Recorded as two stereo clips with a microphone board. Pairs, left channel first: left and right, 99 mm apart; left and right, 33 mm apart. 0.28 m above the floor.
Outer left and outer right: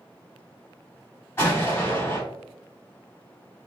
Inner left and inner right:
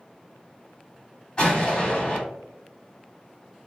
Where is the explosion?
25° left (ahead or behind), 1.4 m.